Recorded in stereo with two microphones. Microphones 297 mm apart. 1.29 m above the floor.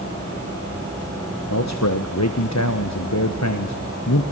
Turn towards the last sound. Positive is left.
turn(degrees=65)  # may be behind; listen again after turning